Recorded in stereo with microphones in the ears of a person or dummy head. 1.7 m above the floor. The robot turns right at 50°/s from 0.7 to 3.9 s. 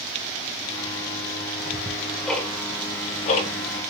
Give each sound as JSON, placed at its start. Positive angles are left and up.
{"t": 1.6, "sound": "ticking", "side_deg": -25, "distance_m": 0.9}